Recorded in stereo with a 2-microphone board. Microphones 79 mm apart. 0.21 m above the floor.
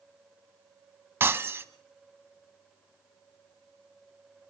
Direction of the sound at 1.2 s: 30° right (ahead or behind).